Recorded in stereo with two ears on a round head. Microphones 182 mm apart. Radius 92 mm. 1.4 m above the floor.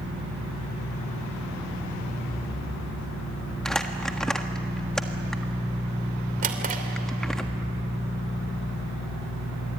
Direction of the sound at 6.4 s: 45° right (ahead or behind).